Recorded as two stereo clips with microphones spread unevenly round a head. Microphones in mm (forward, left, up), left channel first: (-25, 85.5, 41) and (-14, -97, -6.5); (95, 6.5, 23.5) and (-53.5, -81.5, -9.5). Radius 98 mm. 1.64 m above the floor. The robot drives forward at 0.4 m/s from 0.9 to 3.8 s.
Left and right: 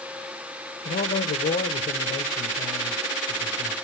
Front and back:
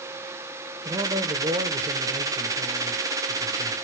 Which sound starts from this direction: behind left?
A man speaking, at 0.8 s.